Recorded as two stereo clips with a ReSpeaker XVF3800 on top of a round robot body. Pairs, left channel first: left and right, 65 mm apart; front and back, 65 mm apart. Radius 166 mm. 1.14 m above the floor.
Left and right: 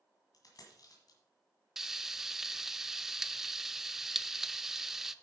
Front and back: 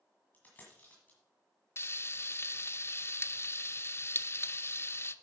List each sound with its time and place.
0.3 s a dropped coin: 70° left, 1.8 m
1.8 s frying: 10° right, 0.8 m